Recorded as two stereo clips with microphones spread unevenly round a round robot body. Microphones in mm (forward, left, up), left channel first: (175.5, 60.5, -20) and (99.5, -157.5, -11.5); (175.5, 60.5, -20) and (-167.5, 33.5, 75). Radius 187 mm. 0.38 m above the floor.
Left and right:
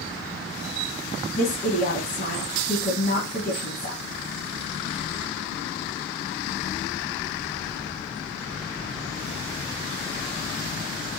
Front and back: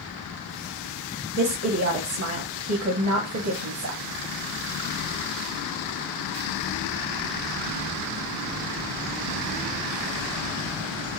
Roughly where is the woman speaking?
Behind left.